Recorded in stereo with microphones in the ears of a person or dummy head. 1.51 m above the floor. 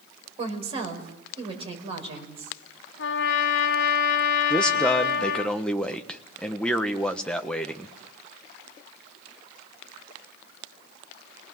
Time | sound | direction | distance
0.4 | a woman speaking | 35° right (ahead or behind) | 5 m
3.0 | a trumpet | 75° left (ahead or behind) | 2 m
4.5 | a man speaking | 5° left (ahead or behind) | 1.2 m